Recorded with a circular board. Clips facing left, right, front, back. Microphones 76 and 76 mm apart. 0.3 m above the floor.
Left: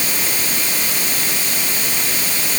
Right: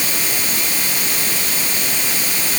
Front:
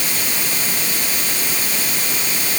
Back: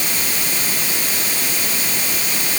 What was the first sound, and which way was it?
Only background noise.